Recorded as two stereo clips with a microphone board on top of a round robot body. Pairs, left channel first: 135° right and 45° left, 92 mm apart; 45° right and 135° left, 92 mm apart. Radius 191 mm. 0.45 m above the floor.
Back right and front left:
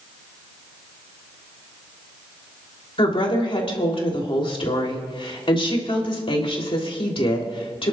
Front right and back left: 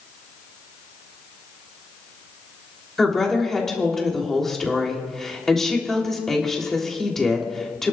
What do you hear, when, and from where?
3.0 s a woman speaking: 130° right, 3 m